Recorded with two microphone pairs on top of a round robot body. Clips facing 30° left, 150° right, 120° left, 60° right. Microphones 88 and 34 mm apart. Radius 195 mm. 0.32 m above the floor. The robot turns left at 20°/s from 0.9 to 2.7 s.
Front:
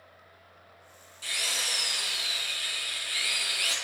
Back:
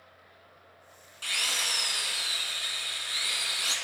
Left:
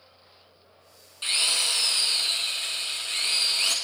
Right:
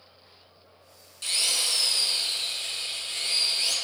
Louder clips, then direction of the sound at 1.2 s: Back 1 dB, left 2 dB; 175° left.